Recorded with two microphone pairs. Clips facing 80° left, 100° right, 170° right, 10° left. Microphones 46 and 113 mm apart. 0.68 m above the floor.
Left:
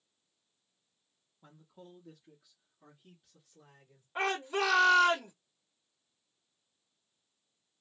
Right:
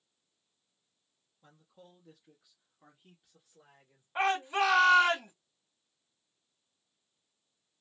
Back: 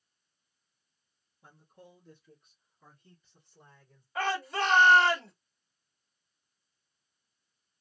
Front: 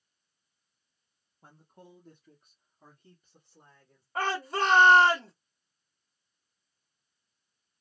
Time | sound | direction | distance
1.4 | a man speaking | 5° left | 0.7 m
4.2 | a shout | 30° right | 1.9 m